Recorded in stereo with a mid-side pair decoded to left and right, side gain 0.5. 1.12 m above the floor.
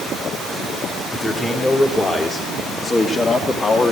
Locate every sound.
1.1 s a man speaking: 15° left, 3.5 m; by 3.9 s 45° left, 2.5 m